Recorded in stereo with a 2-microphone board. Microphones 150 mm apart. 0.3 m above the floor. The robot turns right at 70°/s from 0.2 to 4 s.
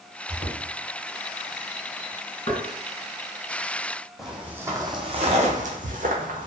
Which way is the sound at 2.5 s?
45° left (ahead or behind).